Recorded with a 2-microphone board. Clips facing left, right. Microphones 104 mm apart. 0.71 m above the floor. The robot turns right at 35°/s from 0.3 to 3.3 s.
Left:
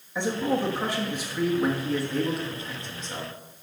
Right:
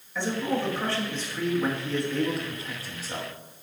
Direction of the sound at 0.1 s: 20° left (ahead or behind).